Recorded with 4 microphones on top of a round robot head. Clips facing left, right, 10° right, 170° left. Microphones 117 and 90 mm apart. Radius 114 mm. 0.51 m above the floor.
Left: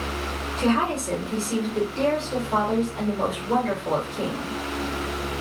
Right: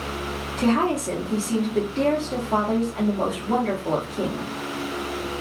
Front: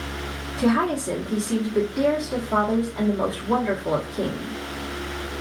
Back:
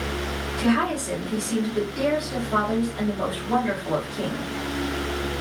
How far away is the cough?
I don't hear a cough.